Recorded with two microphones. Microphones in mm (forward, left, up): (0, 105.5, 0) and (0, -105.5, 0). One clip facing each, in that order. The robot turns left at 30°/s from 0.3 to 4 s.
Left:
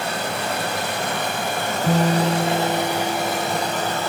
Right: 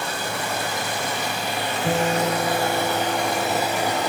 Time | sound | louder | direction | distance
0.0 | running water | left 3 dB | 95° left | 1.1 m
1.8 | a guitar | left 3 dB | 125° left | 1.9 m